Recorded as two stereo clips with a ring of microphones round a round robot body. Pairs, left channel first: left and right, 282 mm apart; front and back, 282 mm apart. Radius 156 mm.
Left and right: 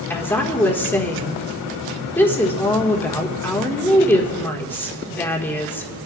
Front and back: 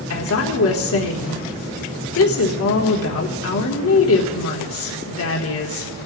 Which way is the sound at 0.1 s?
10° left.